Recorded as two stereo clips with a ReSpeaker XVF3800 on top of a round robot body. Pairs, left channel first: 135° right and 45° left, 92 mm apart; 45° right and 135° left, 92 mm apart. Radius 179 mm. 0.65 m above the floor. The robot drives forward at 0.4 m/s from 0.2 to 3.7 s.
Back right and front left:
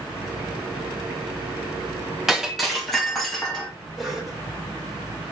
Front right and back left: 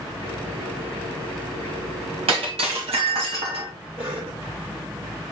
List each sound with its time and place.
2.3 s breaking glass: 130° left, 1.8 m; by 3.7 s 140° left, 2 m
4.0 s a cough: 135° left, 2.5 m